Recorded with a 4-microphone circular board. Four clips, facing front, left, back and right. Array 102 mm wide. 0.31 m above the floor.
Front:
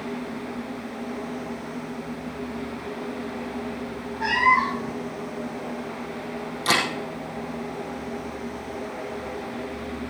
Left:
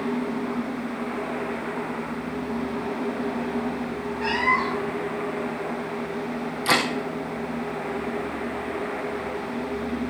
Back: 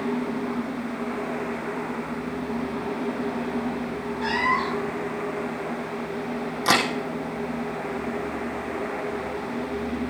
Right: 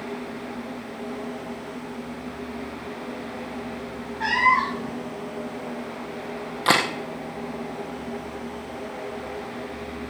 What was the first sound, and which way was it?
A cat meowing, 75° right.